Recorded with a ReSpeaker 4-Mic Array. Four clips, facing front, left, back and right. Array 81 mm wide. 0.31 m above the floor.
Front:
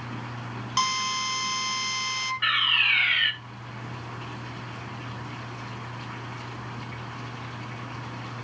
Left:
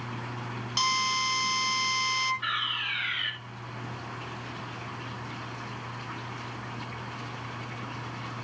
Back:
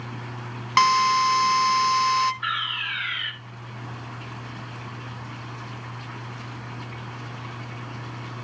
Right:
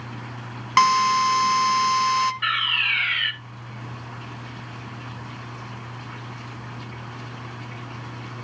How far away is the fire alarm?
About 4 m.